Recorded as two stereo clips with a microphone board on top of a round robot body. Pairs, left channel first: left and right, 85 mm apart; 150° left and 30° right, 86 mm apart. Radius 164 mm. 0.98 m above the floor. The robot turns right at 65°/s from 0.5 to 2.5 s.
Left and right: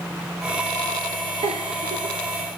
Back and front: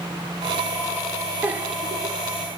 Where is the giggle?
105° right, 3 m; by 2.2 s 55° right, 3 m.